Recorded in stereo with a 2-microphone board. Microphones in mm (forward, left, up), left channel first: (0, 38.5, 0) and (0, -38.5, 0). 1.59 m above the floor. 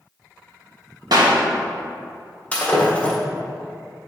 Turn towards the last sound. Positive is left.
turn(degrees=20)  # may be behind; listen again after turning